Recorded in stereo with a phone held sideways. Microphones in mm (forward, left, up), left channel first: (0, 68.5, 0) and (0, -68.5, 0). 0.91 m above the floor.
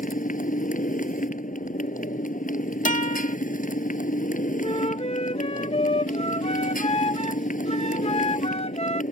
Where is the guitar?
70° left (ahead or behind).